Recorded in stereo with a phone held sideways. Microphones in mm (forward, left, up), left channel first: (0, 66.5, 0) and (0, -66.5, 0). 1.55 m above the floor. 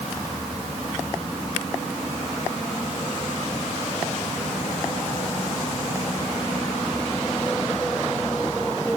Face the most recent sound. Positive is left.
No sound to turn to.